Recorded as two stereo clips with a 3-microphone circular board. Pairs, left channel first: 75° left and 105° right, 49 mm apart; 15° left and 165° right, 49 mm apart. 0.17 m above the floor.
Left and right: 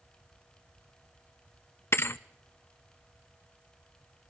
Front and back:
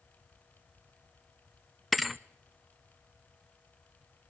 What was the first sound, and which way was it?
A thud, 105° left.